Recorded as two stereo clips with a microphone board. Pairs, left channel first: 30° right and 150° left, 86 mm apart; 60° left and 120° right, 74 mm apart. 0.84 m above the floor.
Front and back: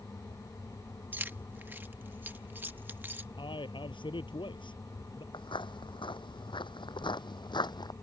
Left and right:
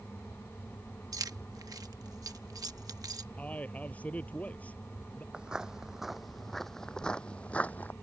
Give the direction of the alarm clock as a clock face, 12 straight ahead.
I don't hear an alarm clock.